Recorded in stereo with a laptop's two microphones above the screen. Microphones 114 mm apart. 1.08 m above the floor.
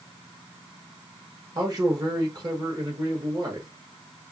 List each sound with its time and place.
1.6 s a man speaking: 35° right (ahead or behind), 1.2 m